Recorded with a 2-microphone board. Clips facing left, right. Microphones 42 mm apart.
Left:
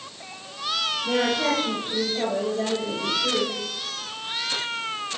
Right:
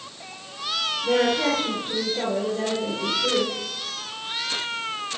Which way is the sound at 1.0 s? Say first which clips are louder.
Right 3 dB; 55° right (ahead or behind).